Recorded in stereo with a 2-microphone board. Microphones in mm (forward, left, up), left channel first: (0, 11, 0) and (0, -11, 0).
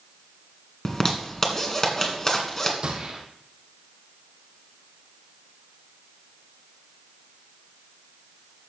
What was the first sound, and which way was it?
A zipper, 25° left (ahead or behind).